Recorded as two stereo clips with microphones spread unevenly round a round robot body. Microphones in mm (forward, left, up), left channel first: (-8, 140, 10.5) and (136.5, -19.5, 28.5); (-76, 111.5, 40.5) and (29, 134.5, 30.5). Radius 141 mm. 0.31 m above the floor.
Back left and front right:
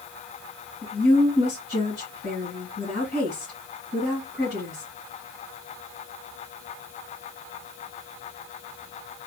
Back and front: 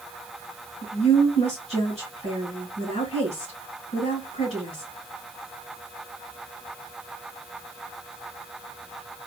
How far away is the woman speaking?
About 2.5 m.